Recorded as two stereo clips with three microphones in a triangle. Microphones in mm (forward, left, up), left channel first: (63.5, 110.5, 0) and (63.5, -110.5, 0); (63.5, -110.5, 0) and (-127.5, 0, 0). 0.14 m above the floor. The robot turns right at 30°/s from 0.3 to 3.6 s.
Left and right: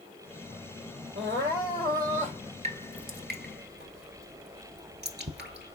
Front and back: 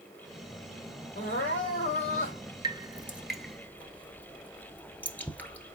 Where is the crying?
65° right, 3.5 m; by 2.4 s 30° right, 3.5 m.